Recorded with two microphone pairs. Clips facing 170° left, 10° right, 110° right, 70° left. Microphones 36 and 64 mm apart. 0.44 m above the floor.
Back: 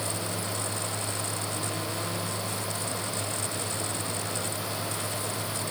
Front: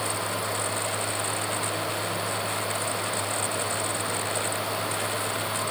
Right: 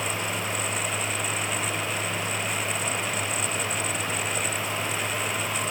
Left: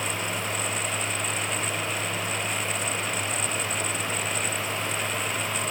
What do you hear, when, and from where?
Only background noise.